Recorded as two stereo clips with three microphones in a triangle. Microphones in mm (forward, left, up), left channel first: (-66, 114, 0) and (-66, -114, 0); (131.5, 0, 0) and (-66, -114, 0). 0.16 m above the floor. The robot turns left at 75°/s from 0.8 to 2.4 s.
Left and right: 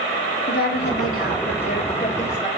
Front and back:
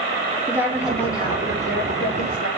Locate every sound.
0.5 s a woman speaking: 130° left, 4.5 m; by 2.5 s 10° left, 4.5 m